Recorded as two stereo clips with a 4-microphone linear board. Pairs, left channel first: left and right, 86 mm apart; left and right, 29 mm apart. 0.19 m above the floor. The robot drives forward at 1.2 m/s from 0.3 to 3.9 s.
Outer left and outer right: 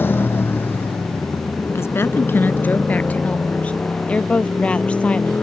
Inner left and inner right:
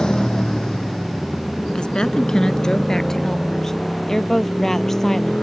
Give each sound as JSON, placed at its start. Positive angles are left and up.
{"t": 0.0, "sound": "a motorcycle", "side_deg": 25}
{"t": 1.8, "sound": "a woman speaking", "side_deg": 30}